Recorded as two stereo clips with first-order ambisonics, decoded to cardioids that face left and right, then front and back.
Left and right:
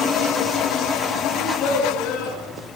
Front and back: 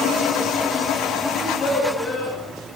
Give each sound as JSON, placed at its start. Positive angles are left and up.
{"t": 1.3, "sound": "a child speaking", "azimuth_deg": 80, "distance_m": 9.0}